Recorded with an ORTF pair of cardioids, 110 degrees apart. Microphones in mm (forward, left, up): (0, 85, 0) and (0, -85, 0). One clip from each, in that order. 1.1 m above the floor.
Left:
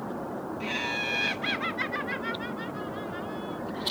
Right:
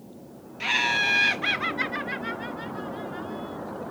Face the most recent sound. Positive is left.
turn(degrees=15)